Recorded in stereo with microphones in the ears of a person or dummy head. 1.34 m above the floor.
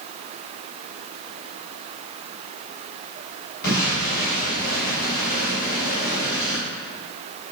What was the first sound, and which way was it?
An explosion, 55° left (ahead or behind).